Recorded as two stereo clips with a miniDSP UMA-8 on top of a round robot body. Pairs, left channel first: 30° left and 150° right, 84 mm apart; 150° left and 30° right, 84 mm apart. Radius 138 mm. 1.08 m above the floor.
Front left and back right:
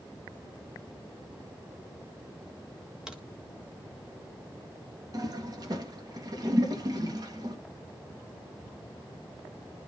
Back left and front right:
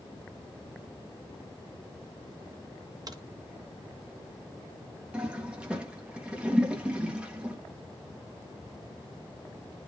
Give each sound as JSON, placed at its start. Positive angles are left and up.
{"t": 3.1, "sound": "a crack", "azimuth_deg": -70, "distance_m": 1.8}
{"t": 5.1, "sound": "a toilet flushing", "azimuth_deg": -110, "distance_m": 1.9}